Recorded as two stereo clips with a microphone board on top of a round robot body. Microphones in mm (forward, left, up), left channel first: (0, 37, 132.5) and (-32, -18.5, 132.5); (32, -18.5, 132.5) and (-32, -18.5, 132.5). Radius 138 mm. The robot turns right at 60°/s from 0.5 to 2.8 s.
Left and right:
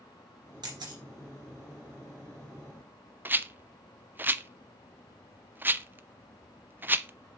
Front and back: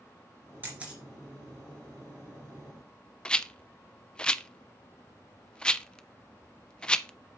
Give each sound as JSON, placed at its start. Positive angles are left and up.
{"t": 0.6, "sound": "a camera shutter", "azimuth_deg": -120, "distance_m": 2.0}
{"t": 3.2, "sound": "a rattle", "azimuth_deg": -70, "distance_m": 0.6}